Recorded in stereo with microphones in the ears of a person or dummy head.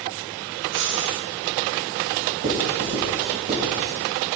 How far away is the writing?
About 4 m.